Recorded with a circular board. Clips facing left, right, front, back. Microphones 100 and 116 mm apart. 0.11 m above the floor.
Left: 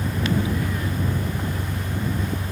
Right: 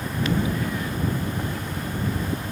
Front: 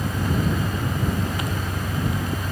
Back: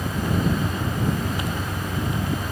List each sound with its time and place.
0.0 s an engine running: 75° left